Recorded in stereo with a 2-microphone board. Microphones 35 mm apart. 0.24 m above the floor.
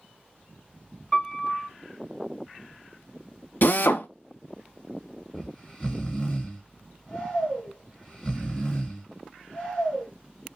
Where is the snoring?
5° left (ahead or behind), 2.5 m.